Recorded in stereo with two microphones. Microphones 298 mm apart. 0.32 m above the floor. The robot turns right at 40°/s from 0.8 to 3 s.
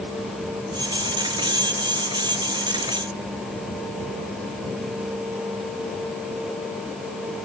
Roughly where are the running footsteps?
No running footsteps in this recording.